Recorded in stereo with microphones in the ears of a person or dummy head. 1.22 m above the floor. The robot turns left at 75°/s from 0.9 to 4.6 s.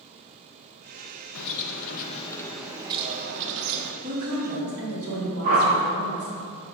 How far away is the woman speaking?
About 2.5 m.